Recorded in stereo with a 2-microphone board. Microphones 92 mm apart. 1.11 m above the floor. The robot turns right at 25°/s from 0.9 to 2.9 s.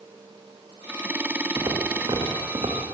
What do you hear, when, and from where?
1.6 s footsteps: 45° right (ahead or behind), 5 m; by 2.8 s 65° right (ahead or behind), 5.5 m